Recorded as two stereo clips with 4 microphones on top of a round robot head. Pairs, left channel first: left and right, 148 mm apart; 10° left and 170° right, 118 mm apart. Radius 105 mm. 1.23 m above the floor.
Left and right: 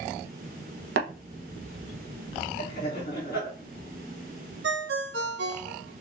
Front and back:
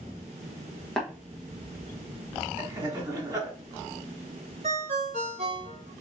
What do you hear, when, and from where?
1.0 s tapping: 80° right, 1.1 m
2.6 s laughter: 140° left, 2 m
4.6 s a ringtone: 115° right, 0.6 m